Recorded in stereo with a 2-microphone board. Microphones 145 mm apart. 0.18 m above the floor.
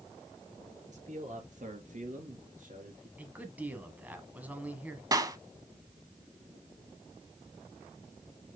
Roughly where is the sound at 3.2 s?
Centre.